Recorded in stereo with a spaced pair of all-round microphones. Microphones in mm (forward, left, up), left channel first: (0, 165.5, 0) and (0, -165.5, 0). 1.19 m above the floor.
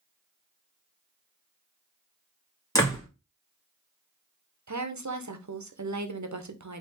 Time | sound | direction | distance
2.8 | a door slam | 10° left (ahead or behind) | 1.6 m
4.7 | a woman speaking | 60° right (ahead or behind) | 0.8 m